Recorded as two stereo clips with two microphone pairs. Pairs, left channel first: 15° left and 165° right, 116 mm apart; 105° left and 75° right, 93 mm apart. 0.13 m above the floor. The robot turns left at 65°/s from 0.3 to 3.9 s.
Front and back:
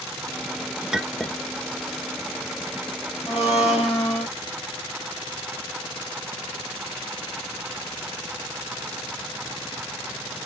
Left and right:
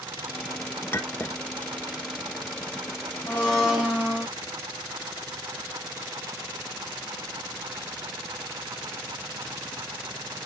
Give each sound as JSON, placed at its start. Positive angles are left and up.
{"t": 0.9, "sound": "a clink", "azimuth_deg": 120, "distance_m": 0.9}
{"t": 3.3, "sound": "a blender", "azimuth_deg": 35, "distance_m": 5.0}